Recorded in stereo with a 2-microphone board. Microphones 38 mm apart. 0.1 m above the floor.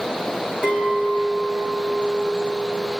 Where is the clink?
20° right (ahead or behind), 4 m.